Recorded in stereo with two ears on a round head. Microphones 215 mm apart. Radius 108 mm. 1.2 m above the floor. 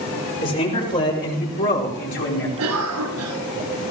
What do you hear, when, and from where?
0.4 s a man speaking: 35° left (ahead or behind), 5.5 m; by 2.5 s 55° left (ahead or behind), 4 m
2.6 s a cough: 70° right (ahead or behind), 7.5 m